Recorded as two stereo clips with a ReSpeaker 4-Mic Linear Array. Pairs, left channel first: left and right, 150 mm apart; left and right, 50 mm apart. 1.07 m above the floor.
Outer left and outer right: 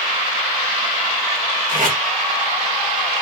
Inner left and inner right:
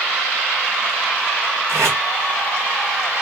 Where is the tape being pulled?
55° right (ahead or behind), 2.5 m.